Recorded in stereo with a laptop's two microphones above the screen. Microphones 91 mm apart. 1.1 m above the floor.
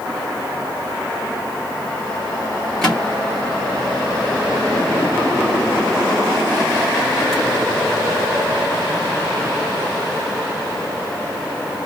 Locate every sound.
2.8 s a microwave: 5° left (ahead or behind), 1.8 m